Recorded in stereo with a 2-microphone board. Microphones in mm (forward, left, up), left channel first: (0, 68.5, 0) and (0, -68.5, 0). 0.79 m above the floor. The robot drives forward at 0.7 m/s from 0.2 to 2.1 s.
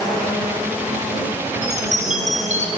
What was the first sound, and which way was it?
A chime, 55° right (ahead or behind).